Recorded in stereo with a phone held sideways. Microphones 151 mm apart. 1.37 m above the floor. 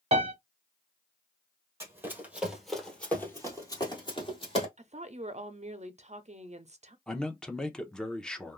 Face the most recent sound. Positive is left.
turn(degrees=5)  # may be behind; listen again after turning